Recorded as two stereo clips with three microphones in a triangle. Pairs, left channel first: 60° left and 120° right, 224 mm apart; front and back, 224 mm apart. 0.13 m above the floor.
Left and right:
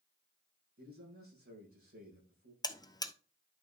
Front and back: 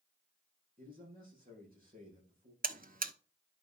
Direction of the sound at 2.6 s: 130° left.